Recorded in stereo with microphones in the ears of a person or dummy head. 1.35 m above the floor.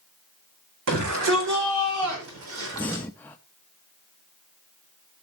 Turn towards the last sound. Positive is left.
turn(degrees=10)  # may be behind; listen again after turning